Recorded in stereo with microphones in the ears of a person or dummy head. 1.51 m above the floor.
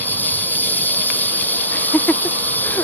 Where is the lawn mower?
10° left (ahead or behind).